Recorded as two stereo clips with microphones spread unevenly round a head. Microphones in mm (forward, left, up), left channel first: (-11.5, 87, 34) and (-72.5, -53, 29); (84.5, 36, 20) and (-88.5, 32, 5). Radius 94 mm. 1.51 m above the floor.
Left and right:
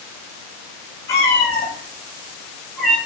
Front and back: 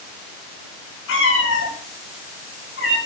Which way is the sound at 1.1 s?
5° right.